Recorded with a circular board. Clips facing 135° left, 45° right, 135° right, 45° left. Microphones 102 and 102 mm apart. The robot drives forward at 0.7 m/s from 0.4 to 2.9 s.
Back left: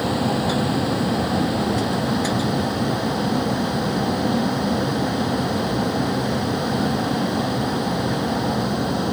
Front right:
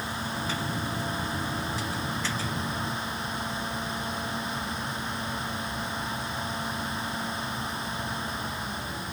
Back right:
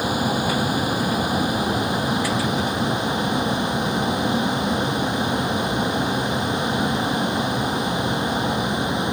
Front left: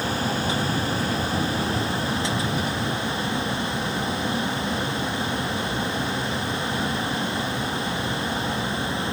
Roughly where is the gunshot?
I don't hear a gunshot.